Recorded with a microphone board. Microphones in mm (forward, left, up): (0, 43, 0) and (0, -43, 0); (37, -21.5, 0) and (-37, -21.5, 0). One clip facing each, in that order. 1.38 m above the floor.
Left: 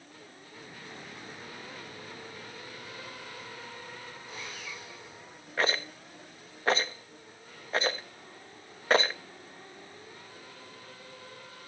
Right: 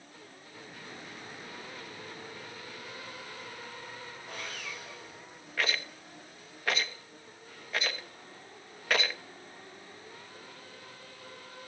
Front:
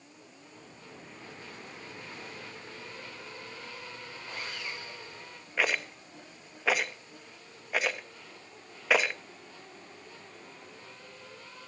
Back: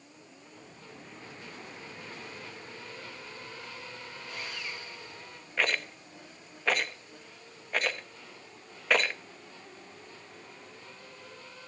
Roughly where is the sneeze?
No sneeze in this recording.